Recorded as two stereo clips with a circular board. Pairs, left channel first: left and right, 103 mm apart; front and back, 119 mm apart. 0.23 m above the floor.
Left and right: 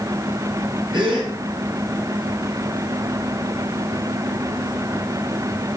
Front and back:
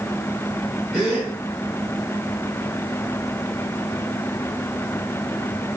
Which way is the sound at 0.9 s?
100° right.